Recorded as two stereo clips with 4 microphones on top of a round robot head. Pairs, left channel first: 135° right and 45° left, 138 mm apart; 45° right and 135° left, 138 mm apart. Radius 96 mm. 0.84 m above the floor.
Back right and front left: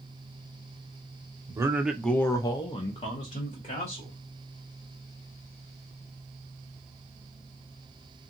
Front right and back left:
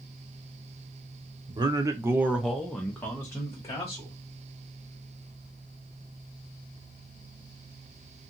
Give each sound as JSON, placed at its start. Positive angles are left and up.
{"t": 1.5, "sound": "a man speaking", "azimuth_deg": 100, "distance_m": 0.8}